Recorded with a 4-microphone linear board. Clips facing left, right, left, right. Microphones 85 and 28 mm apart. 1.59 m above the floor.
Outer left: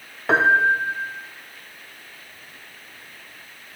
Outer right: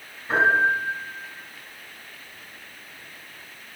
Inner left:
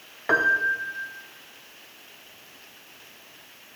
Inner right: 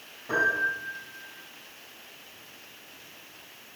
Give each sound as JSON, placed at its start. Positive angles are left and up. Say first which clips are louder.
{"t": 0.3, "sound": "a piano", "louder": "outer left 3 dB, inner left 4 dB", "side_deg": 90, "distance_m": 0.6}